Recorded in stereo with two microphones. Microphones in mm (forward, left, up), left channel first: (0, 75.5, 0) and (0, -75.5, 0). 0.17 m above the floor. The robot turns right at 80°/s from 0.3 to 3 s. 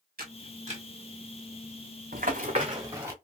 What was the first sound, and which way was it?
A camera shutter, 85° right.